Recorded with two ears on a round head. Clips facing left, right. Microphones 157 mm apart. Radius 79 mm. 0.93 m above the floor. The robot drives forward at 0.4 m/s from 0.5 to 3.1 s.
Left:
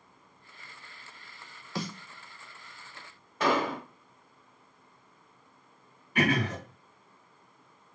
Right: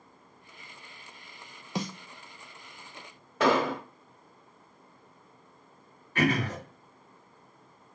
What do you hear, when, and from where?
1.8 s a snare drum: 15° right (ahead or behind), 0.6 m
3.4 s an explosion: 55° right (ahead or behind), 0.6 m
6.2 s throat clearing: 15° left (ahead or behind), 2 m